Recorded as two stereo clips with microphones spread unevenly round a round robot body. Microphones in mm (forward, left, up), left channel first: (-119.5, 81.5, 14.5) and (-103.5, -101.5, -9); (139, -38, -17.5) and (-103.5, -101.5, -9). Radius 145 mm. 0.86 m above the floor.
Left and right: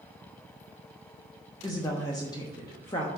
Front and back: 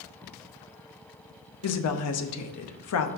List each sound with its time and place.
1.6 s a woman speaking: 15° left, 0.8 m